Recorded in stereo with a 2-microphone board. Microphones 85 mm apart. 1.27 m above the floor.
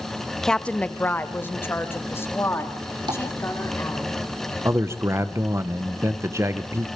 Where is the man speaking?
30° right (ahead or behind), 1.0 m.